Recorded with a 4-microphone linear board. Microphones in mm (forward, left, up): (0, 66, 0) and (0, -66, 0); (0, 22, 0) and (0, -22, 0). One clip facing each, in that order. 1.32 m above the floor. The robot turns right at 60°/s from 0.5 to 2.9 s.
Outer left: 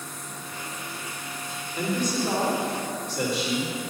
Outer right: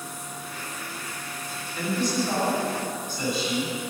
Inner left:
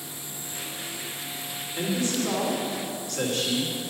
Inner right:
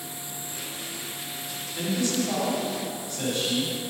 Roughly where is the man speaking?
Ahead left.